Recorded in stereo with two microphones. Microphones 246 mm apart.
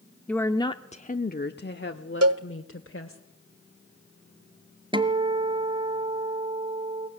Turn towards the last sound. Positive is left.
turn(degrees=-20)  # may be behind; listen again after turning